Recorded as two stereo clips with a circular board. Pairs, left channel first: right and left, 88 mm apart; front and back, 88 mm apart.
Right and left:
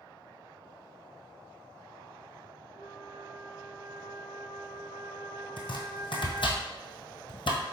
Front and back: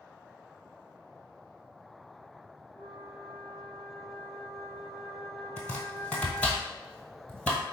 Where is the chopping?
80° right, 1.1 m.